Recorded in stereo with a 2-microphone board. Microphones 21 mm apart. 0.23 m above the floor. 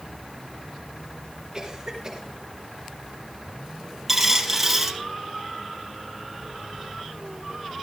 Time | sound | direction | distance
1.5 | a cough | 30° right (ahead or behind) | 3 m
4.1 | a dropped coin | 10° right (ahead or behind) | 3 m